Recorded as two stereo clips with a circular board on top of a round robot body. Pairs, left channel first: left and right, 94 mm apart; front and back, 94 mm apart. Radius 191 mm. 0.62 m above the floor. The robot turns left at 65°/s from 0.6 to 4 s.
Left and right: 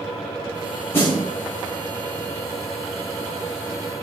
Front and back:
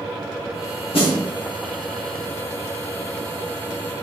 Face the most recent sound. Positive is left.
turn(degrees=-175)